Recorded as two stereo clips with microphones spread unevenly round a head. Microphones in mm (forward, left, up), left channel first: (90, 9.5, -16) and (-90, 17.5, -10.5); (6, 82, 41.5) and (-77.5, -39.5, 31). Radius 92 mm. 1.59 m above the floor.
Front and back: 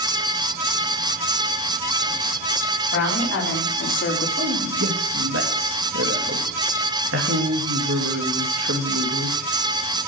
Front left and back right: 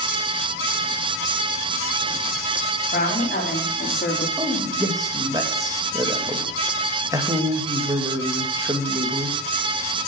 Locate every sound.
2.9 s a woman speaking: 5° left, 4.5 m; by 4.3 s 20° left, 3 m
4.4 s a man speaking: 170° left, 2.5 m